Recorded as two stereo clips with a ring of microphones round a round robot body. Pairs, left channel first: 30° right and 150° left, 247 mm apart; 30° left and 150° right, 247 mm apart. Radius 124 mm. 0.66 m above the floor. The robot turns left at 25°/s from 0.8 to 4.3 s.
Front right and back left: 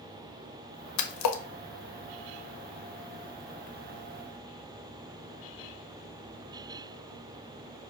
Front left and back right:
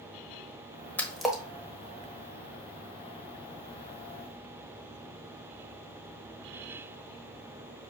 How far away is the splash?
About 1.2 m.